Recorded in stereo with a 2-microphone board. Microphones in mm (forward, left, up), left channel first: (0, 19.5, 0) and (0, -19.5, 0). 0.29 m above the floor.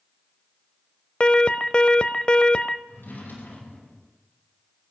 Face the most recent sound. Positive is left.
turn(degrees=60)  # may be behind; listen again after turning